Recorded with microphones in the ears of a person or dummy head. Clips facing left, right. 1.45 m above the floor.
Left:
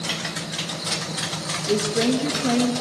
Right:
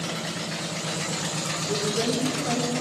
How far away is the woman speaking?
About 2.5 m.